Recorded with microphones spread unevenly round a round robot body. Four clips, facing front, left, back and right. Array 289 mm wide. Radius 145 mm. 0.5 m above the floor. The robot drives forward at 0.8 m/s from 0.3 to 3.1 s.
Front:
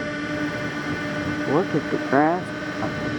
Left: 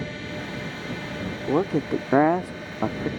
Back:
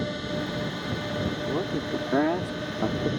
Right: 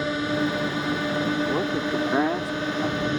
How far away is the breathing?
No breathing in this recording.